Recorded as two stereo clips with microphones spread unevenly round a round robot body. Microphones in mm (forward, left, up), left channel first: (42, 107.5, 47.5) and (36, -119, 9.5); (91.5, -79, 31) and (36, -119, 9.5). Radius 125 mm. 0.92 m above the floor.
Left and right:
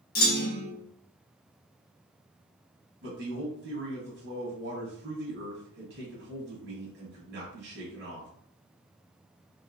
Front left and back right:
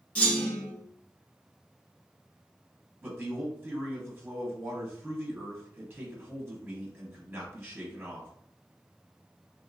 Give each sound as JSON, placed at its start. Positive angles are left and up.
{"t": 0.1, "sound": "a clunk", "azimuth_deg": 85, "distance_m": 0.7}
{"t": 3.0, "sound": "a man speaking", "azimuth_deg": -100, "distance_m": 1.2}